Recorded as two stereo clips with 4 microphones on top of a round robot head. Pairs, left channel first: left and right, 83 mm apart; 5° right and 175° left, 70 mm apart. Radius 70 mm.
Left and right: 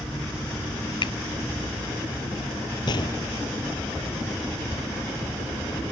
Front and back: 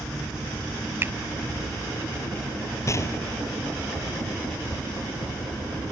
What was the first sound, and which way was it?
A finger snap, 120° left.